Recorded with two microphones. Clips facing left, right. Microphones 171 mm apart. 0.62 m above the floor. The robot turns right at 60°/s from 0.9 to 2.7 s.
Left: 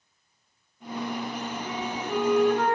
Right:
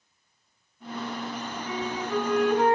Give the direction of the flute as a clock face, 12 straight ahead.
7 o'clock.